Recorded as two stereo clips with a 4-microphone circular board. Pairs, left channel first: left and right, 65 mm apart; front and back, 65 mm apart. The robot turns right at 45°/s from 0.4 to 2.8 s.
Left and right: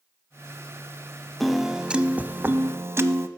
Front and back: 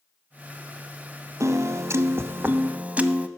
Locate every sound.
1.4 s a piano: straight behind, 0.6 m; by 3.3 s 120° right, 0.6 m